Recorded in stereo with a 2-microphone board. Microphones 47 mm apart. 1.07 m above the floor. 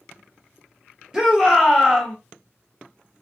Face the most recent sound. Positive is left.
turn(degrees=-15)  # may be behind; listen again after turning